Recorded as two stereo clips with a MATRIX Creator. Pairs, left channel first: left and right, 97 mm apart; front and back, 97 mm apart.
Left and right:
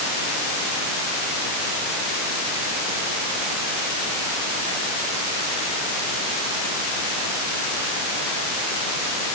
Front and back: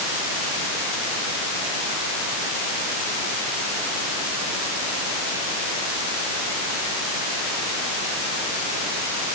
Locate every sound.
Only background noise.